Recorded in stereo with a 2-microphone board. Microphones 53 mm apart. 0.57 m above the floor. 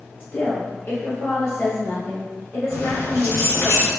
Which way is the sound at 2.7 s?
75° left (ahead or behind).